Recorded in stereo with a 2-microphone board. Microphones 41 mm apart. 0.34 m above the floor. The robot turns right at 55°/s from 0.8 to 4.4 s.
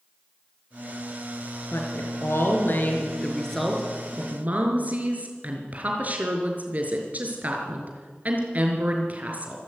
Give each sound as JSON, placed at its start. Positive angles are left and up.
{"t": 1.7, "sound": "a woman speaking", "azimuth_deg": 70, "distance_m": 5.0}